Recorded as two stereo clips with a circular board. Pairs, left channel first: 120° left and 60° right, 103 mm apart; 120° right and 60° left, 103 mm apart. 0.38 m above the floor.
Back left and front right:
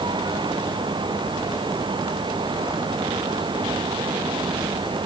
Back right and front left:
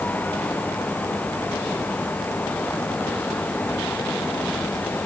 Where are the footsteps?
I don't hear footsteps.